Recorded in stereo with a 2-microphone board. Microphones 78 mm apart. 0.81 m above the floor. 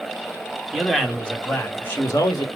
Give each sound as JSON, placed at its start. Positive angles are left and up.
{"t": 0.7, "sound": "a man speaking", "side_deg": 0, "distance_m": 2.0}